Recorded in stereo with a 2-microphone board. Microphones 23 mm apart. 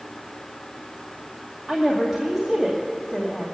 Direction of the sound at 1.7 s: 15° right (ahead or behind).